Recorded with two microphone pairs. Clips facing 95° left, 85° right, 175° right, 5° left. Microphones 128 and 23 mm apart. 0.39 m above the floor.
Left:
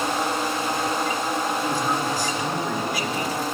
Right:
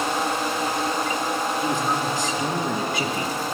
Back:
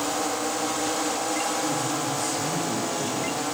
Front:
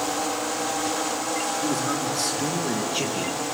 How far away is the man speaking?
About 4.5 m.